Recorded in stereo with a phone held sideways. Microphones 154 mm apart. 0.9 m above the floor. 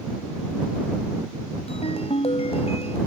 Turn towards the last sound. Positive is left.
turn(degrees=45)  # may be behind; listen again after turning